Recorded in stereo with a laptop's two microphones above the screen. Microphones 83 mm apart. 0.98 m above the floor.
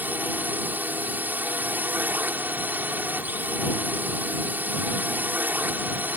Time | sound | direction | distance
0.0 | a drone | 20° right (ahead or behind) | ?